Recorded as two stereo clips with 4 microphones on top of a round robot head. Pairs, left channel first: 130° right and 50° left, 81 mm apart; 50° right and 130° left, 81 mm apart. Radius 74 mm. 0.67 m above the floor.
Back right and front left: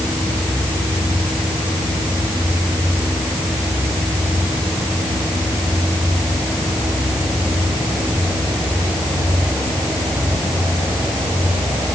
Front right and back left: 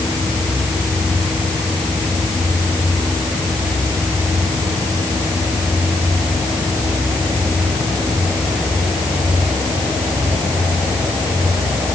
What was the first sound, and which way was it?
Only background noise.